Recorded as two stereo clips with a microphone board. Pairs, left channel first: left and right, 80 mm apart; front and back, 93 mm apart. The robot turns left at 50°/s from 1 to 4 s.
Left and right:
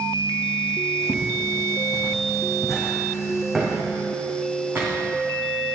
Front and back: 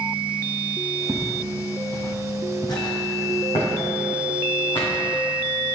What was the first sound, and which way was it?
Footsteps, 125° left.